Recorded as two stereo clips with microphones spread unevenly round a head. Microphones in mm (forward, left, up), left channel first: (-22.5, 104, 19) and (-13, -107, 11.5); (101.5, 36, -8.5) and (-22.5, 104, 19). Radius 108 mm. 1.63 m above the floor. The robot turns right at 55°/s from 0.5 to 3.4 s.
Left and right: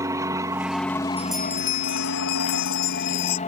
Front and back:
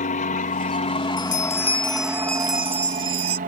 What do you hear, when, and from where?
0.0 s an aircraft: 10° right; by 3.5 s 145° left
1.2 s a bell: 5° right; by 3.4 s 115° left